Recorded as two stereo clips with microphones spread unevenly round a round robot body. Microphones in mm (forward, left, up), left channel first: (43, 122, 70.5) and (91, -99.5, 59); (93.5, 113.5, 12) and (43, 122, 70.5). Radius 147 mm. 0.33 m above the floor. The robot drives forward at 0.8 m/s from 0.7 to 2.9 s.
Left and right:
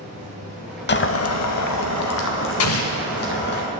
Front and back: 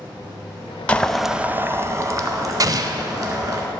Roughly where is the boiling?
Ahead left.